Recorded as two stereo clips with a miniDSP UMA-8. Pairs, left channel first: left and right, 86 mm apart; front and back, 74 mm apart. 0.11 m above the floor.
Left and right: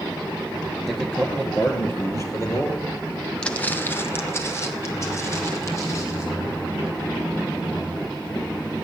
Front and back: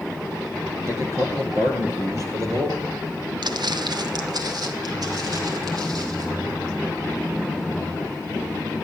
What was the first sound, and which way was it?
A man speaking, straight behind.